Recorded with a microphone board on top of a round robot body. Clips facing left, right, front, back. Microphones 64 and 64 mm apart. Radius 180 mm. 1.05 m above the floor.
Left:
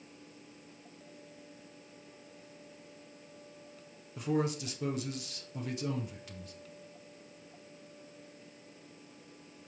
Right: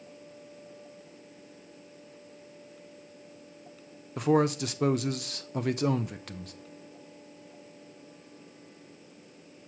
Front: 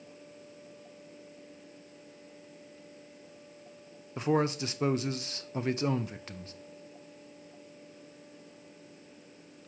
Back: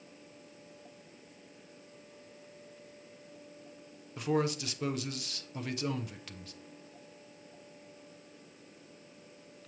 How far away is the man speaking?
About 0.7 m.